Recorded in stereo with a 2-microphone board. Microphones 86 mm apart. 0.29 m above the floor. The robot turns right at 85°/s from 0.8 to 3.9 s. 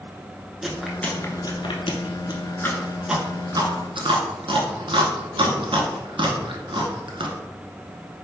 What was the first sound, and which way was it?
Chewing, 5° right (ahead or behind).